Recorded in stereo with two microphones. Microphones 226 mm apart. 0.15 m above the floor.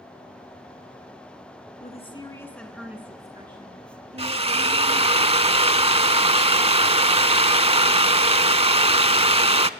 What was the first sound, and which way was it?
A woman speaking, 30° left (ahead or behind).